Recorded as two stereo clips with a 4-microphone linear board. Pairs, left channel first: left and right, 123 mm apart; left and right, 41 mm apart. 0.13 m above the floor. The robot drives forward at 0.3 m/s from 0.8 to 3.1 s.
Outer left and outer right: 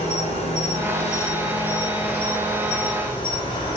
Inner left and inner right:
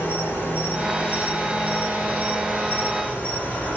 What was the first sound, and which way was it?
An insect, 60° left (ahead or behind).